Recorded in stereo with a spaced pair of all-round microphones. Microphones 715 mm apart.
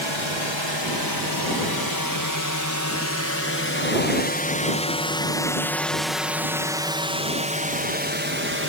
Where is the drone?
40° left (ahead or behind); by 8.7 s 15° right (ahead or behind).